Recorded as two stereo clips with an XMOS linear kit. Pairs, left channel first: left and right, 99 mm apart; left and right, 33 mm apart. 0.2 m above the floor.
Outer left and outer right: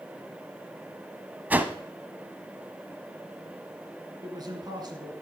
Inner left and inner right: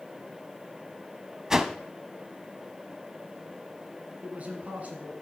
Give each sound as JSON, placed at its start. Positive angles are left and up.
{"t": 1.5, "sound": "a whoosh", "side_deg": -15, "distance_m": 0.6}
{"t": 4.2, "sound": "a man speaking", "side_deg": -45, "distance_m": 1.9}